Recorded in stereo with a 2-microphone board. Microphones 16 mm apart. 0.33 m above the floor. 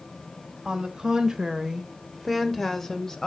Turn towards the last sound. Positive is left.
turn(degrees=40)  # may be behind; listen again after turning